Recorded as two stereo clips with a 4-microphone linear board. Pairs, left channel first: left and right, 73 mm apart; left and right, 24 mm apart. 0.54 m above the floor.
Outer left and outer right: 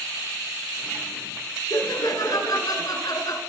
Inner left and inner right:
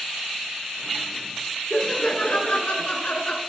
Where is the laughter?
50° left (ahead or behind), 8.5 m.